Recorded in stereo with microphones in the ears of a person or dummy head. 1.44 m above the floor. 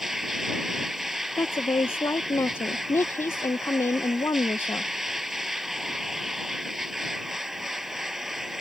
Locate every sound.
0.0 s a machine running: 5° right (ahead or behind)
1.4 s a woman speaking: 15° left (ahead or behind)